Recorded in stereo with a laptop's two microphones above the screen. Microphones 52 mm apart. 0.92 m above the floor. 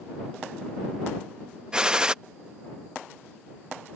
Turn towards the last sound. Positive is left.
turn(degrees=-15)  # may be behind; listen again after turning